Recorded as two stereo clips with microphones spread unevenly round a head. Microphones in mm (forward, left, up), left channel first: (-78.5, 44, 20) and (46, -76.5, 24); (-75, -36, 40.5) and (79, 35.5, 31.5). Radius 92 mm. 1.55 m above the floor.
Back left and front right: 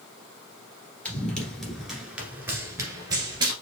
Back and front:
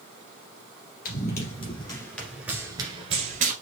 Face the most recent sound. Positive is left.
turn(degrees=10)